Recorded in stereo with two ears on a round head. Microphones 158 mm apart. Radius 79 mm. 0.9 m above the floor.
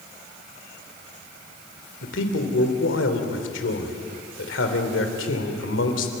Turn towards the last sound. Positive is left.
turn(degrees=75)  # may be behind; listen again after turning